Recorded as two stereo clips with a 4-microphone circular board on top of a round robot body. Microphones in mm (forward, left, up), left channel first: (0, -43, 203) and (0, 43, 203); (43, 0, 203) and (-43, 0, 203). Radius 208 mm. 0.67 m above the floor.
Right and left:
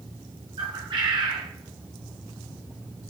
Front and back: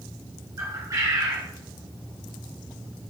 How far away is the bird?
About 1.3 m.